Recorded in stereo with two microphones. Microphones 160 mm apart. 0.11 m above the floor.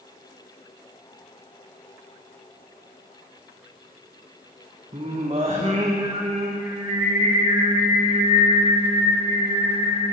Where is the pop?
No pop in this recording.